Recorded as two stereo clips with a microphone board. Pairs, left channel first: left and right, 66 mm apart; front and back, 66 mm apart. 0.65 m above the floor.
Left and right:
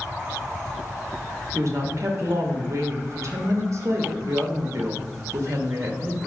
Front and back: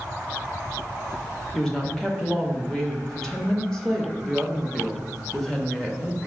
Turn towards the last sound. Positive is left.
turn(degrees=-80)